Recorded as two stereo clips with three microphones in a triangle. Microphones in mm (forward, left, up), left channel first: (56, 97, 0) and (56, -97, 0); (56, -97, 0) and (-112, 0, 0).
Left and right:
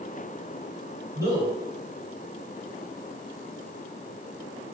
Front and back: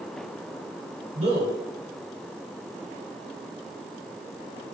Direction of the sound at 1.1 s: 160° right.